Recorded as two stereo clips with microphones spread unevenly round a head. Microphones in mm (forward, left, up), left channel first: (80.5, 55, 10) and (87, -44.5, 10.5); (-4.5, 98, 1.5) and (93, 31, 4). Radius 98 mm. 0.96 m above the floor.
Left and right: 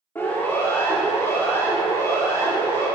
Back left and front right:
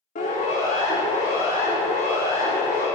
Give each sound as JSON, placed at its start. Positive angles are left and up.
{"t": 0.1, "sound": "a siren", "azimuth_deg": 170, "distance_m": 3.5}